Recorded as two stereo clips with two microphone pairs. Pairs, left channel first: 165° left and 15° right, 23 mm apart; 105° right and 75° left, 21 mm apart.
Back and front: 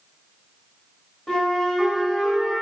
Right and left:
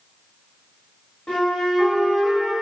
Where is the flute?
135° right, 1.7 m.